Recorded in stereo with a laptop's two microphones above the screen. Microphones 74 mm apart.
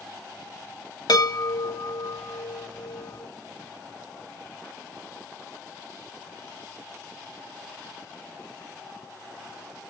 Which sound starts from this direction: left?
A chime, at 1.1 s.